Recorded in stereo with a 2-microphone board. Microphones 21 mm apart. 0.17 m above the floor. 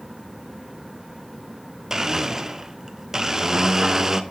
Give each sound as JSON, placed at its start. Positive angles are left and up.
{"t": 1.9, "sound": "a blender", "side_deg": -25, "distance_m": 0.7}